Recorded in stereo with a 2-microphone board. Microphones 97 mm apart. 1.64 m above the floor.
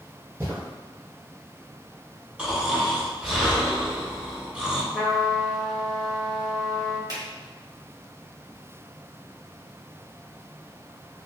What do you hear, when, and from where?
0.4 s footsteps: 25° right (ahead or behind), 1.7 m
2.4 s snoring: 5° right (ahead or behind), 1.1 m
4.9 s a trumpet: 5° left (ahead or behind), 1.0 m
7.1 s a finger snap: 45° right (ahead or behind), 1.8 m